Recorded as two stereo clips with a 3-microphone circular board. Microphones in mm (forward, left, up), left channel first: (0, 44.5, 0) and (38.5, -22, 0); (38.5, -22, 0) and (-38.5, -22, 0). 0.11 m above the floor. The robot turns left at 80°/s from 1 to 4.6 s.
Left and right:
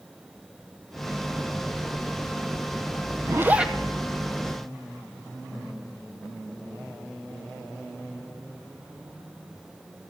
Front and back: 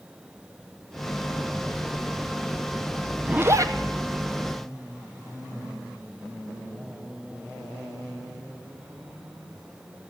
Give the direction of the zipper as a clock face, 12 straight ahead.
4 o'clock.